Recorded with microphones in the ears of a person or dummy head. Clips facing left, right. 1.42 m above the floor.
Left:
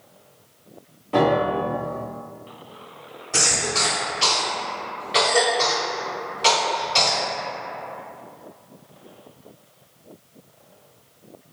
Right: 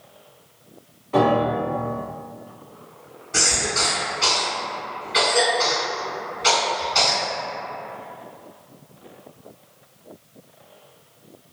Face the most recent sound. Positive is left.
turn(degrees=75)  # may be behind; listen again after turning